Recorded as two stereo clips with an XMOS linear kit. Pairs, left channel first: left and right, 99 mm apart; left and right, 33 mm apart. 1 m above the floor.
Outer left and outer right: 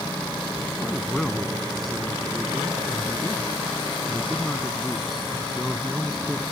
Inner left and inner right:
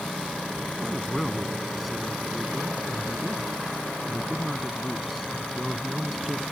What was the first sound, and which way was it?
A man speaking, centre (ahead or behind).